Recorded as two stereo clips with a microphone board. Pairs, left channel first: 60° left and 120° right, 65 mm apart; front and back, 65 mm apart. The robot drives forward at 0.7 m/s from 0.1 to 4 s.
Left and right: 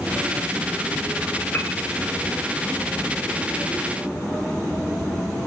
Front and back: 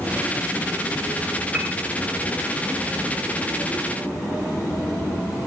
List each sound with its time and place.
1.5 s a piano: 115° left, 1.3 m; by 1.7 s 120° left, 1.4 m